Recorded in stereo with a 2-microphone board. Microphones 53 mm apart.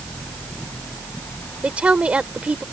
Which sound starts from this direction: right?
A woman speaking, at 1.6 s.